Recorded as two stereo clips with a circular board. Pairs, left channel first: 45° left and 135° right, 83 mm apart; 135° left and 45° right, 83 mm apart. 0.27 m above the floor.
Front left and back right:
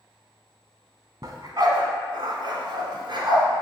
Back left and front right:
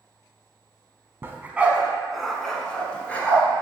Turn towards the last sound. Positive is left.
turn(degrees=-155)